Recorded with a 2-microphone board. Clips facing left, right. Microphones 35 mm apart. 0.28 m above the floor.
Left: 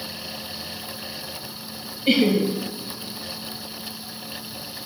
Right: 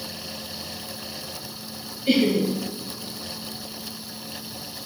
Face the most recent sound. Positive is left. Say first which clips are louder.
# left 1 dB
turn(degrees=40)  # may be behind; listen again after turning